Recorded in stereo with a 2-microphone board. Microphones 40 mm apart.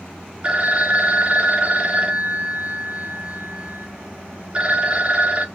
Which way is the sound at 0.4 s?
30° right (ahead or behind).